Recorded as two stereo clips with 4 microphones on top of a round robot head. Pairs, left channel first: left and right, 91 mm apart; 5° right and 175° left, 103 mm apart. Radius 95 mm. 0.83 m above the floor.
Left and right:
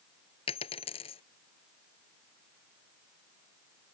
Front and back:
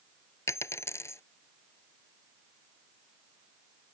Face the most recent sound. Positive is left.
turn(degrees=55)